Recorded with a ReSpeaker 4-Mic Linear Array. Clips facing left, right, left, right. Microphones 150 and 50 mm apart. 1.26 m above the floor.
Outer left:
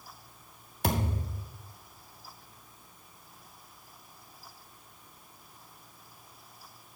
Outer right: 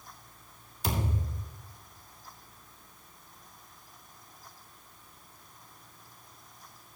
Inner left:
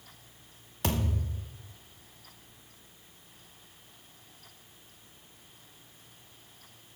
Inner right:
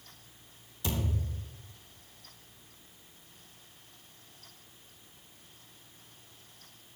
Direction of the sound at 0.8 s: 65° left (ahead or behind).